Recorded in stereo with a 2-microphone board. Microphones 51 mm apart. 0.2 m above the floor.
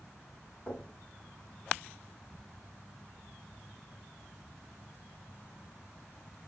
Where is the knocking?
30° left (ahead or behind), 1.3 m.